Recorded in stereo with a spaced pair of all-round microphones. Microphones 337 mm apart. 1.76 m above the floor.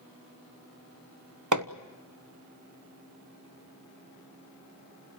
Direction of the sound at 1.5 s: 60° right (ahead or behind).